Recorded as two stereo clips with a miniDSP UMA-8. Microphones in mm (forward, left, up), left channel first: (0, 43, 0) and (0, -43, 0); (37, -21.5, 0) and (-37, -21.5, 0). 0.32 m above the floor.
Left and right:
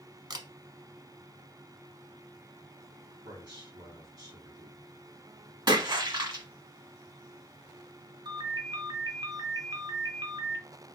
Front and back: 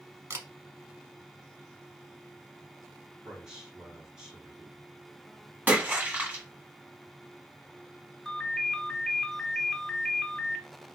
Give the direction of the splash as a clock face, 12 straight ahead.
4 o'clock.